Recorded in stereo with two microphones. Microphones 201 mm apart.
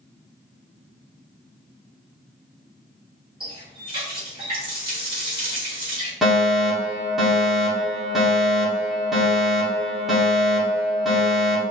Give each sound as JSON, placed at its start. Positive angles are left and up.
{"t": 3.4, "sound": "a running tap", "side_deg": -25, "distance_m": 3.0}
{"t": 6.2, "sound": "a fire alarm", "side_deg": 0, "distance_m": 2.5}